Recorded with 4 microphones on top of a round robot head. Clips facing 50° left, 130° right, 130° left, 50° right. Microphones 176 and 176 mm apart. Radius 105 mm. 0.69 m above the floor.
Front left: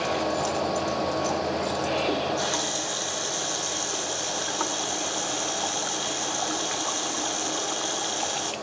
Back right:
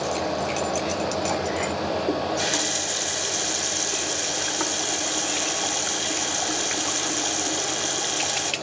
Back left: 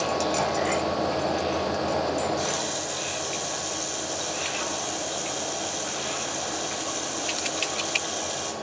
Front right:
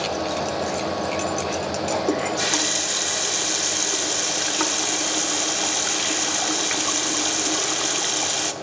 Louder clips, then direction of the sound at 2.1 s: Back right 2 dB, front right 3 dB; 60° right.